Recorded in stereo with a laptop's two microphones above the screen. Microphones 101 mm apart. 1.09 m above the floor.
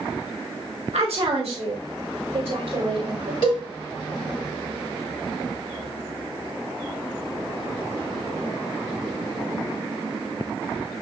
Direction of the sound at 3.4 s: 55° left (ahead or behind).